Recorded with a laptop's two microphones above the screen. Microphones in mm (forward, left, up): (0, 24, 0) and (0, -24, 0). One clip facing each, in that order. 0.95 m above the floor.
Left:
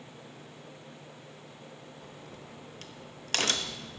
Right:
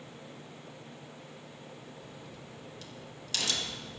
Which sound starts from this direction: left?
A crack, at 2.0 s.